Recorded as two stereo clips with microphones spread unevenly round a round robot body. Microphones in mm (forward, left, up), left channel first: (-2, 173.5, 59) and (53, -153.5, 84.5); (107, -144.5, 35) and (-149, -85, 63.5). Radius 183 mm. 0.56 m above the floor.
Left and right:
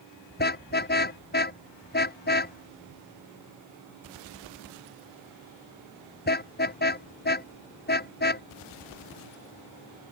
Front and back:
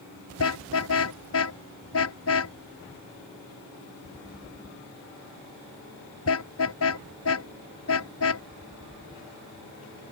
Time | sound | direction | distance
0.4 | a car horn | 35° left | ?